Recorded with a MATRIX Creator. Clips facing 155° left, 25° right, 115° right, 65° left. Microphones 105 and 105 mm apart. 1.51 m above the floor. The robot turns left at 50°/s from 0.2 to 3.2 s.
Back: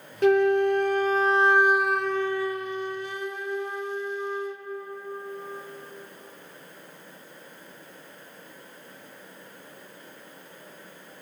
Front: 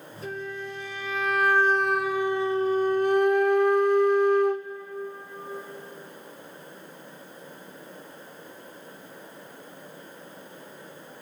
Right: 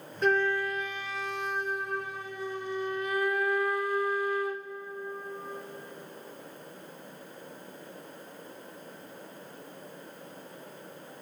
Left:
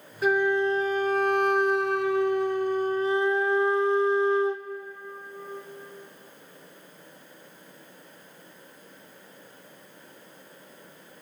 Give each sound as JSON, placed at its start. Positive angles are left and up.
{"t": 0.2, "sound": "a flute", "azimuth_deg": 155, "distance_m": 0.6}